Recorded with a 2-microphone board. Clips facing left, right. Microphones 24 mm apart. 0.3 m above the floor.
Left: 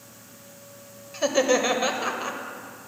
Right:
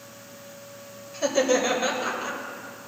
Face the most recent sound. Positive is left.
turn(degrees=20)  # may be behind; listen again after turning